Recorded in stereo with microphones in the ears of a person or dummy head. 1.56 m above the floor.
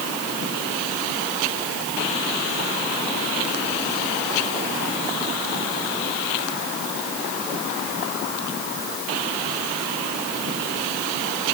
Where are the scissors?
I don't hear scissors.